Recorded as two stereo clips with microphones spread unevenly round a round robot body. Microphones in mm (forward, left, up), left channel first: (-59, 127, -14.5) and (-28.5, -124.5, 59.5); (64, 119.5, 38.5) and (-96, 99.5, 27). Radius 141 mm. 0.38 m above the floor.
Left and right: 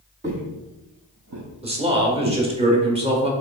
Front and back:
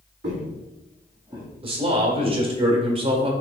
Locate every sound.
0.2 s footsteps: 135° right, 1.0 m; by 2.4 s 70° right, 1.6 m
1.6 s a man speaking: 160° right, 1.1 m